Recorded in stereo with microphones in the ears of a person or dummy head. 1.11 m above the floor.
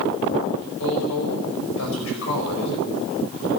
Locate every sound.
0.8 s a woman speaking: 80° left, 5.5 m